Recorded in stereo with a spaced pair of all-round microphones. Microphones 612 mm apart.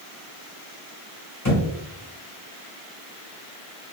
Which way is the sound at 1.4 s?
25° left (ahead or behind).